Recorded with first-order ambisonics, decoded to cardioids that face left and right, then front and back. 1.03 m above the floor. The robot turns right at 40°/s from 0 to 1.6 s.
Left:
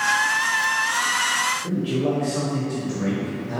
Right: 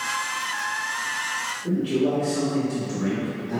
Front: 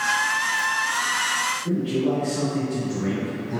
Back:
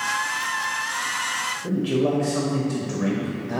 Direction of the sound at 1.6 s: 160° left.